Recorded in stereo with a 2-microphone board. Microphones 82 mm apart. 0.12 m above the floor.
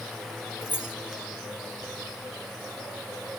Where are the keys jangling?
20° left (ahead or behind), 2.5 m.